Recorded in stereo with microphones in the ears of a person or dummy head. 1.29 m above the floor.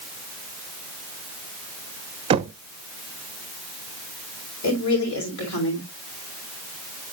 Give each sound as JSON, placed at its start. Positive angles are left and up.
{"t": 2.3, "sound": "knocking", "side_deg": -30, "distance_m": 0.6}
{"t": 4.6, "sound": "a woman speaking", "side_deg": 70, "distance_m": 6.0}